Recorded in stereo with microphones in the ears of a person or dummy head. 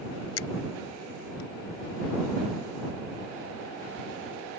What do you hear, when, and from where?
0.4 s a finger snap: 85° left